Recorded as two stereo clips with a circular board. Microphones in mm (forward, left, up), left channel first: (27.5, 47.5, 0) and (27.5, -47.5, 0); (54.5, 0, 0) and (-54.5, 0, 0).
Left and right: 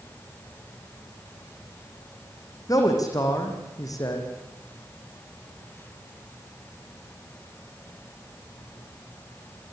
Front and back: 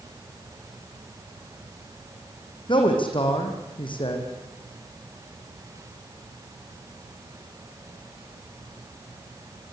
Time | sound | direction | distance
2.7 | a man speaking | 40° left | 6 m